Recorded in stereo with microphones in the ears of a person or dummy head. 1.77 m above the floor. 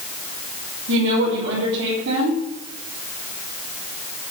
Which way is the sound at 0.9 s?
60° right (ahead or behind).